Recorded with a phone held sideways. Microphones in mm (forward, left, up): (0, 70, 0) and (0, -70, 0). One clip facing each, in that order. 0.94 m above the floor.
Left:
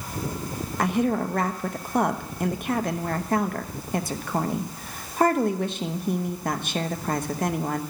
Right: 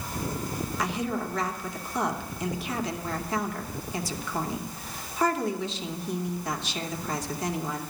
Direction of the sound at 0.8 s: 55° left (ahead or behind).